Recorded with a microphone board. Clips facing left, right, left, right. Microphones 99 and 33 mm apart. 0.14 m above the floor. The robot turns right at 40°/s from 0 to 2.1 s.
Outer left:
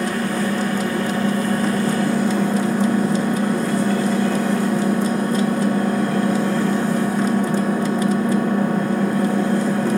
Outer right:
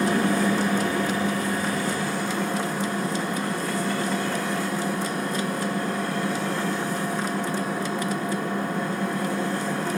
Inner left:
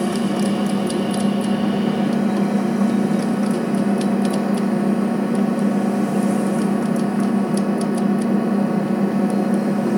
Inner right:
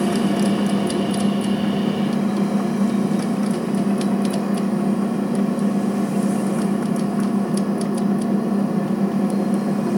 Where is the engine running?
25° right, 1.0 m; by 10.0 s 60° left, 1.0 m.